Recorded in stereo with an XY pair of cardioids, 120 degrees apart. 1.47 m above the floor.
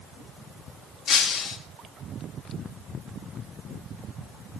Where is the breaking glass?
55° left, 1.8 m.